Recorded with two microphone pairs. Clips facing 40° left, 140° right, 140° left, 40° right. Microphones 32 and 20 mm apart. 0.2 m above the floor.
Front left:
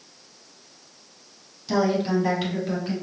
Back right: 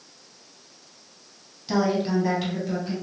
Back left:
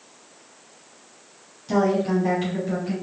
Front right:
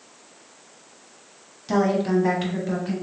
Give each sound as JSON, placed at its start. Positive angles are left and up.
{"t": 1.7, "sound": "a woman speaking", "azimuth_deg": -70, "distance_m": 1.1}